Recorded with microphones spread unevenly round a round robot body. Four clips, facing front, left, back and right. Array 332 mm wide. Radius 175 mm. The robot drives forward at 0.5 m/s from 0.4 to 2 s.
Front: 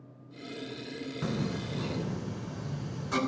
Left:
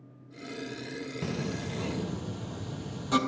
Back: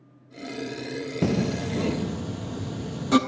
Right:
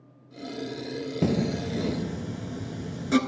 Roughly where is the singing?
Behind right.